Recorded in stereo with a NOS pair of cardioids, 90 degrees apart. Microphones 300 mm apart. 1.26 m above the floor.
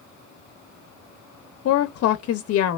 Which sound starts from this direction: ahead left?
A woman speaking, at 1.6 s.